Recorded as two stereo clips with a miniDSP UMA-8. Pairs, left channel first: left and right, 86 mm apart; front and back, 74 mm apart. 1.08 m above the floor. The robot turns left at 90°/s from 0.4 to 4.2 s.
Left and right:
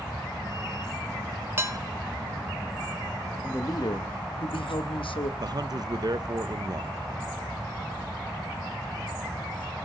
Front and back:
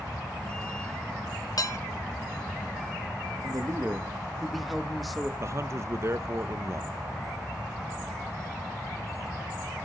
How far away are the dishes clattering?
About 1.1 m.